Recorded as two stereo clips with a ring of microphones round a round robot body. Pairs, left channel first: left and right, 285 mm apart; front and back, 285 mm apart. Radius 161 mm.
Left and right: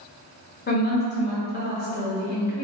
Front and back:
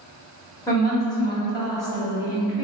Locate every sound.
0.7 s a woman speaking: 70° left, 1.4 m